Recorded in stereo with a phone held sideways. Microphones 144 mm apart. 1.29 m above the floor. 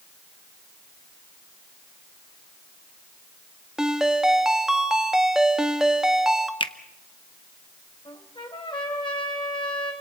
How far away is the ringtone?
About 1.4 m.